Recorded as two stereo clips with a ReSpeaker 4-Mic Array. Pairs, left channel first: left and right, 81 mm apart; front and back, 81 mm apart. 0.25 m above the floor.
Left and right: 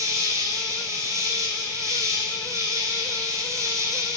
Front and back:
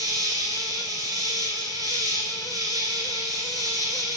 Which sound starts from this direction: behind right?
An insect, at 0.0 s.